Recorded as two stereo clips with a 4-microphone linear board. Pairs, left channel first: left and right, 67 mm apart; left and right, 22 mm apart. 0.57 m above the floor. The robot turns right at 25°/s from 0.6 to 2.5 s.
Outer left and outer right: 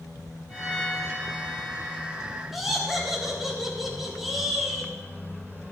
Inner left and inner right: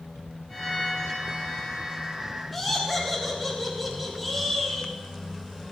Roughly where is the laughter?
Centre.